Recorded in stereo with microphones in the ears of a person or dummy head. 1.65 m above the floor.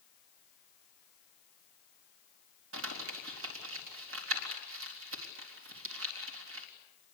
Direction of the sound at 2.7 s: 80° right.